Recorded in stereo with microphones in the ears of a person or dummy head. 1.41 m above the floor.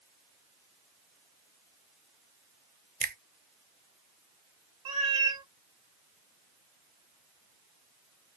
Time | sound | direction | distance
3.0 | a finger snap | 45° right (ahead or behind) | 0.6 m
4.8 | a cat meowing | 20° right (ahead or behind) | 0.9 m